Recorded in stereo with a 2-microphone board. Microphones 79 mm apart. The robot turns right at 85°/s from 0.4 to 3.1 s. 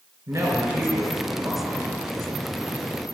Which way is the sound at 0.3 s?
60° right.